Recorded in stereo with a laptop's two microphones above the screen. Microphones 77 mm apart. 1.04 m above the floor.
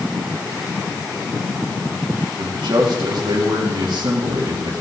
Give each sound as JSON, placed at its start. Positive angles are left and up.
{"t": 2.4, "sound": "a man speaking", "side_deg": -75, "distance_m": 2.0}